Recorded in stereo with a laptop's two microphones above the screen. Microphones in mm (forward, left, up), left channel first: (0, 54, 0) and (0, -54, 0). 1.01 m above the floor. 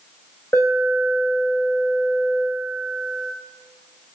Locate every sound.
0.5 s an alarm: 20° left (ahead or behind), 4.5 m